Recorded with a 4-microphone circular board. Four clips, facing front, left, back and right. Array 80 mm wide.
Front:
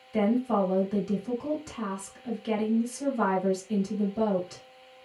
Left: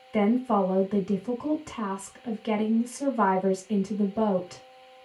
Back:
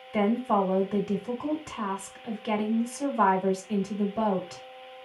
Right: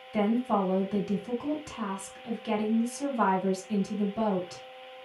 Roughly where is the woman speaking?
Behind left.